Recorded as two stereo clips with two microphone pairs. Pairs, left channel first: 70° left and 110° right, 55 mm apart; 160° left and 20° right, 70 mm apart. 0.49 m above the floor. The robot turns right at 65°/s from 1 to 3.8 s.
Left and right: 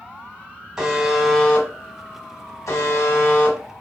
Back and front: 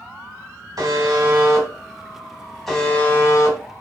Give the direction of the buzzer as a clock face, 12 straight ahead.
1 o'clock.